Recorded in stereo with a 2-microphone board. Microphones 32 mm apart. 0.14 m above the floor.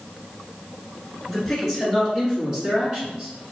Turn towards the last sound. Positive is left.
turn(degrees=-35)  # may be behind; listen again after turning